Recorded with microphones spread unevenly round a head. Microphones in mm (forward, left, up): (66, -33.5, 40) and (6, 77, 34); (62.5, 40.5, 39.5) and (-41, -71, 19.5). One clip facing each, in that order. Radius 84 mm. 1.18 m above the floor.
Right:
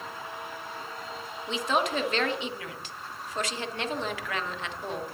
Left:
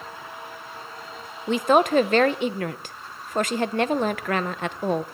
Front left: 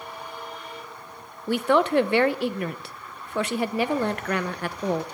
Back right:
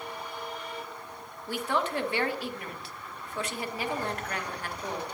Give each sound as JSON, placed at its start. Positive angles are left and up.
{"t": 1.5, "sound": "a woman speaking", "azimuth_deg": 85, "distance_m": 0.7}